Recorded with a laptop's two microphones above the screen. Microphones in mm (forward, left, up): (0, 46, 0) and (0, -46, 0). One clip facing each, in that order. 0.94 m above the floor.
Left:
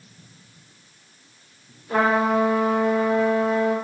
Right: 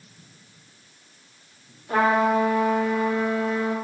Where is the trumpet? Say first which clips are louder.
Even; 65° right (ahead or behind), 1.7 m.